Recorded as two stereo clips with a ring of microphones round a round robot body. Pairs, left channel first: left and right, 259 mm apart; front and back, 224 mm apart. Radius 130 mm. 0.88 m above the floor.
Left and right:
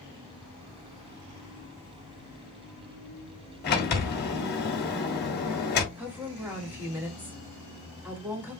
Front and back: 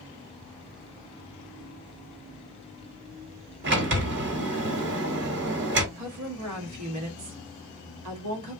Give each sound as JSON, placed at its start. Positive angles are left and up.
{"t": 3.6, "sound": "a sliding door", "azimuth_deg": 145, "distance_m": 1.7}
{"t": 6.0, "sound": "a woman speaking", "azimuth_deg": -175, "distance_m": 1.7}